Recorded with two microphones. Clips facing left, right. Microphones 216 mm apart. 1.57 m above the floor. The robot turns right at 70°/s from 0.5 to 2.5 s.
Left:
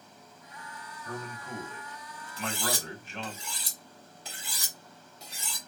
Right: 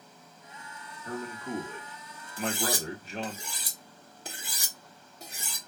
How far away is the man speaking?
About 1.1 m.